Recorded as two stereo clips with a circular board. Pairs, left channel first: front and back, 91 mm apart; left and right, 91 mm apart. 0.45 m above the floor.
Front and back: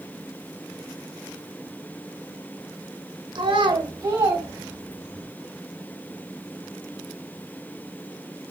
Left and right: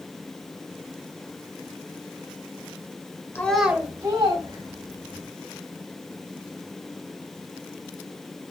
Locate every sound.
3.4 s a child speaking: 155° left, 0.8 m; by 5.3 s 110° right, 3 m